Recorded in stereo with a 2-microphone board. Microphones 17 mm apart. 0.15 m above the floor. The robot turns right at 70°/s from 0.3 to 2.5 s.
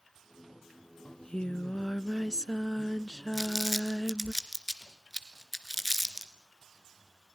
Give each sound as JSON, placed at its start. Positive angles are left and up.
{"t": 1.1, "sound": "singing", "azimuth_deg": 40, "distance_m": 0.5}
{"t": 3.3, "sound": "crumpling", "side_deg": 5, "distance_m": 1.8}